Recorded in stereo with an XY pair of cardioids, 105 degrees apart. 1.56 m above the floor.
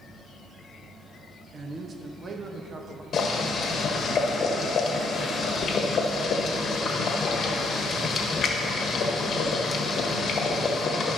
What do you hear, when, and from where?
1.5 s a man speaking: 35° right, 1.0 m
3.1 s boiling: 55° left, 1.2 m